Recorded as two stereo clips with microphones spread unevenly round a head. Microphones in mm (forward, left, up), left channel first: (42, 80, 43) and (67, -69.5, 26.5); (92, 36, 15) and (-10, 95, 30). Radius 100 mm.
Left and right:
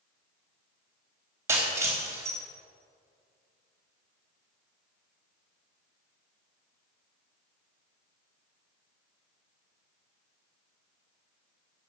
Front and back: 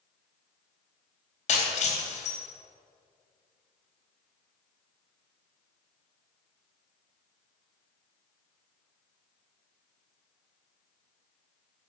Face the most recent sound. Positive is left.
turn(degrees=-5)